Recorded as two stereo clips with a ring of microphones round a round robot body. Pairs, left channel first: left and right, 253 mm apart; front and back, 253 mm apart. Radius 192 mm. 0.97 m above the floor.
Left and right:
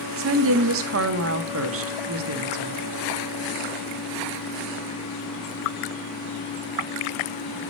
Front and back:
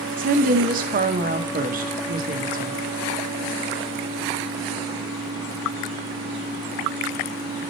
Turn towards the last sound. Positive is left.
turn(degrees=-120)